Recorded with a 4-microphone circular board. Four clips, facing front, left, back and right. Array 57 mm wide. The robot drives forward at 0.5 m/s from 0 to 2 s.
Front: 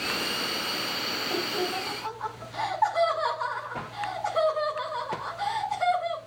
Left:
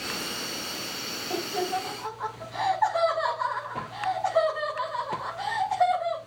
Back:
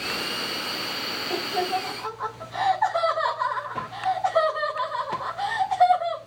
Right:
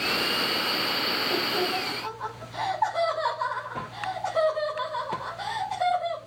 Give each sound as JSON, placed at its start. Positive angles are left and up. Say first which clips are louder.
{"t": 1.3, "sound": "laughter", "louder": "left 2 dB, back 5 dB", "azimuth_deg": 155, "distance_m": 6.5}